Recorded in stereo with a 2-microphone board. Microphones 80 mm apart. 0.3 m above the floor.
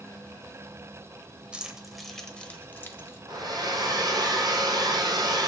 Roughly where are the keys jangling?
Centre.